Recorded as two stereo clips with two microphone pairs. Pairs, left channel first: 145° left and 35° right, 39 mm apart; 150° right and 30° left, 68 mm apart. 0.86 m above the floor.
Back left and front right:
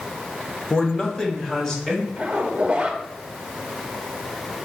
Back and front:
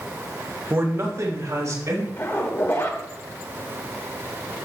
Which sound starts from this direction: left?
A man speaking, at 0.7 s.